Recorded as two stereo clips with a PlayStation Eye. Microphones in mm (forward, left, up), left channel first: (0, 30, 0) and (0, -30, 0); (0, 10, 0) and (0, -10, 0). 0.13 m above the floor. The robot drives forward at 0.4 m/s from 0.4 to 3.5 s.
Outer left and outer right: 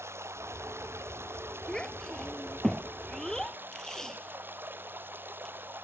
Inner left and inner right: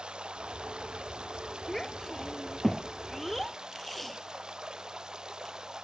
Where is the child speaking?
10° left (ahead or behind).